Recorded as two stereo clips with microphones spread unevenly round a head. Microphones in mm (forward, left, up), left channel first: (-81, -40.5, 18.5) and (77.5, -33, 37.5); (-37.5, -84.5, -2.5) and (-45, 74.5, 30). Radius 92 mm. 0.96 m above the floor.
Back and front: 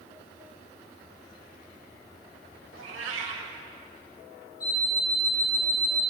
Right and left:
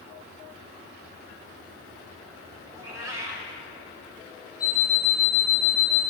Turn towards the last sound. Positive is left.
turn(degrees=180)